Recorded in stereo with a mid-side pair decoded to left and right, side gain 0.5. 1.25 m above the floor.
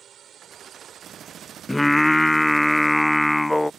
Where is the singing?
5° left.